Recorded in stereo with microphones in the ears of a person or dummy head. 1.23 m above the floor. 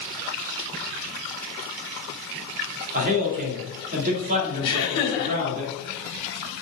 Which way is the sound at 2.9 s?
40° right (ahead or behind).